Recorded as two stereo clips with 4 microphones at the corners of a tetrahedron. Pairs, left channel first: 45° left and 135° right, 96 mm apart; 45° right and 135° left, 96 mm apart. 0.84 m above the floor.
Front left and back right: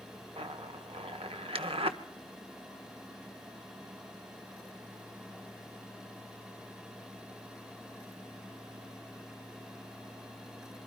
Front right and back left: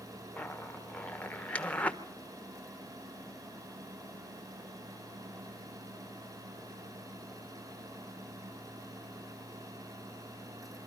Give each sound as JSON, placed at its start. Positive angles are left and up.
{"t": 0.4, "sound": "a zipper", "azimuth_deg": -120, "distance_m": 1.2}